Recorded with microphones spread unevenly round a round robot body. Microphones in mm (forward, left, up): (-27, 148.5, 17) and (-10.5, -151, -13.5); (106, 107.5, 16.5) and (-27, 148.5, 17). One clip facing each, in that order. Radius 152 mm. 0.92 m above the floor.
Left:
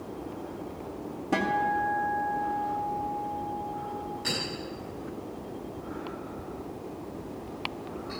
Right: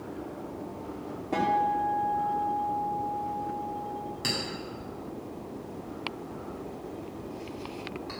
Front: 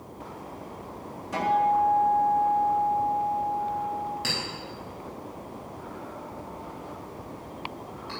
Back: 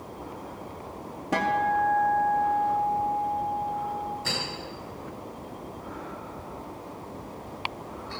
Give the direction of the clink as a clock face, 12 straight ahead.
1 o'clock.